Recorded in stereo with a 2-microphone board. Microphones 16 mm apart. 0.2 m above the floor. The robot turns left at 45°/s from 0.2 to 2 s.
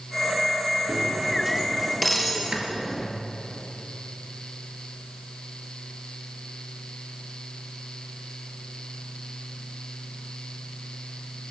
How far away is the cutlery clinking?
About 2.5 m.